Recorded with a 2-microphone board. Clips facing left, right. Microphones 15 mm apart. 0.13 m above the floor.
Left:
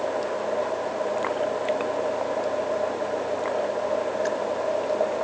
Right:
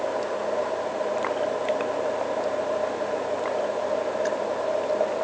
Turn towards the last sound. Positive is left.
No sound to turn to.